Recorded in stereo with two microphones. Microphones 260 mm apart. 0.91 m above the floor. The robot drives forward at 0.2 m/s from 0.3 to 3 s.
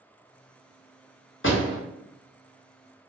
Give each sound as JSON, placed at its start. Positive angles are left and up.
{"t": 1.4, "sound": "a door slam", "side_deg": 50, "distance_m": 0.9}